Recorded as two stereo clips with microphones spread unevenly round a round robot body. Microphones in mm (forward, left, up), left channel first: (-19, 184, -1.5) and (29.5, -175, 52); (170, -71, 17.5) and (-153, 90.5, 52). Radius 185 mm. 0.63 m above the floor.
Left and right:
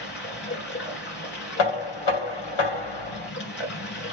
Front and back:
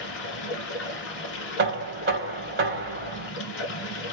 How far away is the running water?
About 1.5 m.